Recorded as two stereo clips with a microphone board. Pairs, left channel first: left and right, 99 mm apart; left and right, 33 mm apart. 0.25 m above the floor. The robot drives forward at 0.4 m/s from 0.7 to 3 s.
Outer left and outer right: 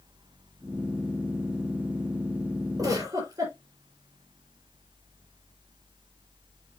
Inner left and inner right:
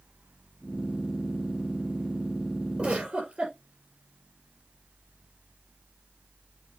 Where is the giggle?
35° right (ahead or behind), 4.5 m.